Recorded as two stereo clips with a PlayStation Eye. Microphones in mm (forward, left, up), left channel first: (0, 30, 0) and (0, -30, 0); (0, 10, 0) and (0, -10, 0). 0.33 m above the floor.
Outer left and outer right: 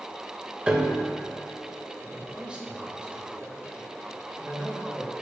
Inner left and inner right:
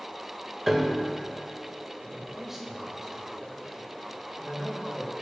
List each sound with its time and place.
0.7 s a piano: 15° right (ahead or behind), 0.6 m
2.0 s a man speaking: 20° right (ahead or behind), 1.1 m